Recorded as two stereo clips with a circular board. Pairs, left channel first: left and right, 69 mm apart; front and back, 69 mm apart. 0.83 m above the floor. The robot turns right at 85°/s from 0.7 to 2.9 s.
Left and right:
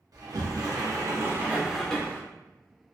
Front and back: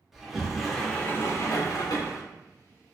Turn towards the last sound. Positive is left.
turn(degrees=95)